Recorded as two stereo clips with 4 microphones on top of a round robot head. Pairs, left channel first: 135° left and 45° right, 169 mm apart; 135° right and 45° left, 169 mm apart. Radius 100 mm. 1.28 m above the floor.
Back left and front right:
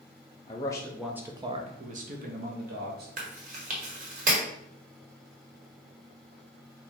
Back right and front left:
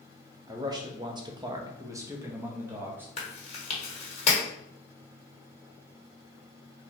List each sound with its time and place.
0.5 s a man speaking: 100° left, 0.6 m; by 3.1 s 35° right, 1.2 m
3.2 s chewing: 85° right, 1.1 m